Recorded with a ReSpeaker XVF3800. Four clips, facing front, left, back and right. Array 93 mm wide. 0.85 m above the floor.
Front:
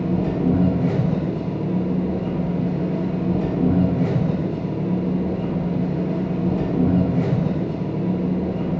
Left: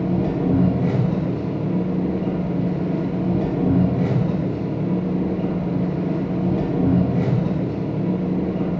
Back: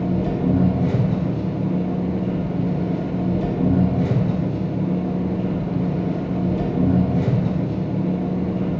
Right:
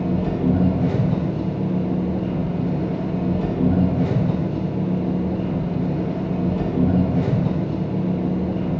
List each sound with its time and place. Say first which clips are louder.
0.0 s an engine running: even, even; 60° left, 0.8 m